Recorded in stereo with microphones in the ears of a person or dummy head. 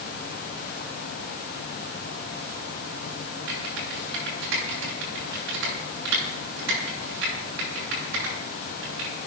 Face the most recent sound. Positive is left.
turn(degrees=-75)  # may be behind; listen again after turning